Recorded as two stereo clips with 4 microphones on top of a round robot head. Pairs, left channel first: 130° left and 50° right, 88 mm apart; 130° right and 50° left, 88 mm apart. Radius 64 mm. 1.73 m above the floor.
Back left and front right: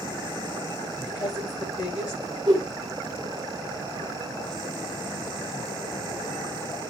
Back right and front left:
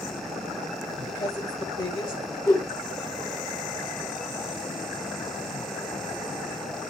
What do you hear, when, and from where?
1.1 s a woman speaking: straight behind, 9.5 m
2.5 s a whoosh: 85° right, 1.2 m